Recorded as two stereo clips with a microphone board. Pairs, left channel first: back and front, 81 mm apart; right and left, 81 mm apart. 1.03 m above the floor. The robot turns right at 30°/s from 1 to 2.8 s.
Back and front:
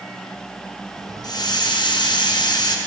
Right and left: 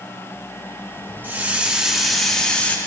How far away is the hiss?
About 0.5 m.